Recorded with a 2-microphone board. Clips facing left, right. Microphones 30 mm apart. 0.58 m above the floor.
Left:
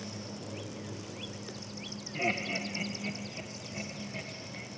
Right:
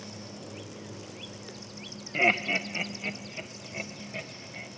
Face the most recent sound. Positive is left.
turn(degrees=-30)  # may be behind; listen again after turning